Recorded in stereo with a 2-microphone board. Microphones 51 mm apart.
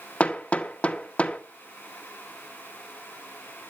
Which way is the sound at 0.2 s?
30° left (ahead or behind).